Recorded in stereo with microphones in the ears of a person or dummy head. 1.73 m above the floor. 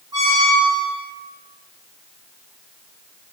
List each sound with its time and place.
0.1 s a squeak: 20° right (ahead or behind), 0.6 m